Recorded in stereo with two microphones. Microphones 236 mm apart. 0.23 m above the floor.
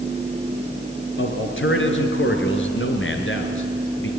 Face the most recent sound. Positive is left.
turn(degrees=55)  # may be behind; listen again after turning